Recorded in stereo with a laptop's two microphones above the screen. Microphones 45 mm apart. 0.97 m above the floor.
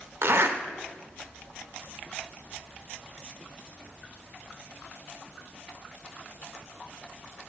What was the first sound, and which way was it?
A zipper, 65° right (ahead or behind).